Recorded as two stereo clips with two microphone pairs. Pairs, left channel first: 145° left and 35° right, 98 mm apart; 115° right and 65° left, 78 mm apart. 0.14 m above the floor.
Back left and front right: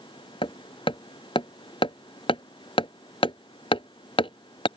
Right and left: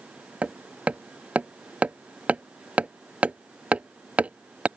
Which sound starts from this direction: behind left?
Hammering, at 0.4 s.